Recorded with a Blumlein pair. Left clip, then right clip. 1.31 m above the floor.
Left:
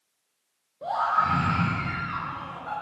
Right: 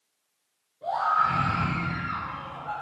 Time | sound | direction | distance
0.8 | a scream | 60° left | 1.7 m